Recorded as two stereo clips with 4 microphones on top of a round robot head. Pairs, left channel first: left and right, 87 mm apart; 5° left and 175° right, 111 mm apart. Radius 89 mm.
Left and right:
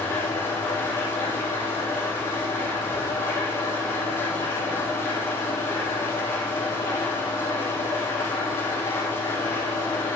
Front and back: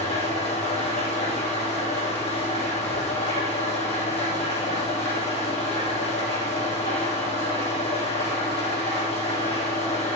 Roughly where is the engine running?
Ahead left.